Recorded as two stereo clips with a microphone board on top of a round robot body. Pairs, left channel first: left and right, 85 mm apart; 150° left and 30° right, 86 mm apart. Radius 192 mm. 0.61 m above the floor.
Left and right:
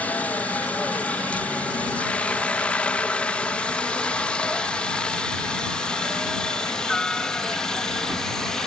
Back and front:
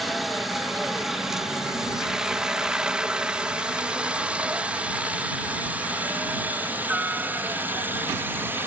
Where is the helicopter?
55° left; by 8.7 s 10° left.